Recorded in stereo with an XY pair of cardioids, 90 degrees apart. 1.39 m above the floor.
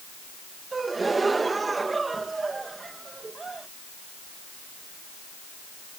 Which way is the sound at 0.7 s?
30° right.